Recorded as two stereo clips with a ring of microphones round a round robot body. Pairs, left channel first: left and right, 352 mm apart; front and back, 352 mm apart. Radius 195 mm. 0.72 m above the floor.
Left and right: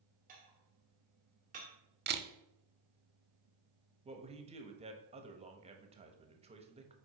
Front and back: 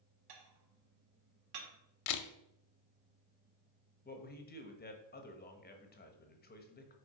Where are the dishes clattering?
160° right, 1.4 m.